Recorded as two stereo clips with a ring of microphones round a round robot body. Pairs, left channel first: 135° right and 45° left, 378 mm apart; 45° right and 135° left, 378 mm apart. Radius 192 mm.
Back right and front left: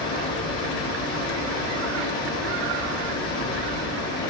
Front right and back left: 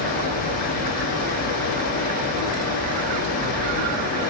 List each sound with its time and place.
0.0 s running water: 75° right, 0.9 m